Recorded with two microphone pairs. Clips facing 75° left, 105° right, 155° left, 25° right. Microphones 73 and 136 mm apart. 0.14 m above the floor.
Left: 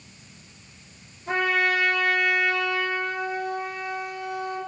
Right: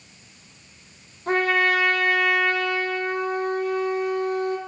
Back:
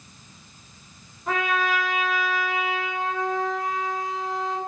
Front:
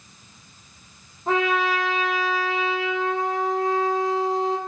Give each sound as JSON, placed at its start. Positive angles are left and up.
{"t": 1.3, "sound": "a trumpet", "azimuth_deg": -80, "distance_m": 4.5}